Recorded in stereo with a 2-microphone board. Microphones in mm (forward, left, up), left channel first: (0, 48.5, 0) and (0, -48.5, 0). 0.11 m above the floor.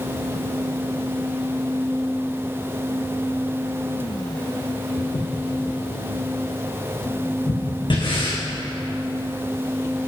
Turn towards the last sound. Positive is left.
turn(degrees=55)  # may be behind; listen again after turning